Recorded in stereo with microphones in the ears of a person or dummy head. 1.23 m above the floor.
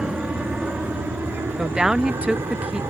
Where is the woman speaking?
Centre (ahead or behind).